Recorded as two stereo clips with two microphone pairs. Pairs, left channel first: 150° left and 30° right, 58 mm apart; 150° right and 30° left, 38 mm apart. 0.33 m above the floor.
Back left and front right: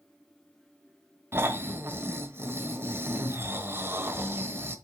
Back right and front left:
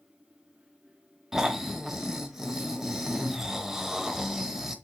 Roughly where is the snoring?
Ahead right.